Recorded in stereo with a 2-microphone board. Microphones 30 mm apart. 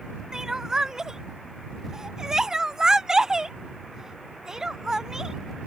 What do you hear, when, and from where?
0.3 s crying: 20° right (ahead or behind)